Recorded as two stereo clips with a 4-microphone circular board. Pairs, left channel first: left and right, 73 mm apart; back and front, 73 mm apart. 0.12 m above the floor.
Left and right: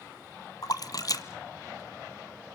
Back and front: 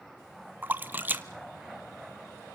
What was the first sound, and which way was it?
A splash, 60° left.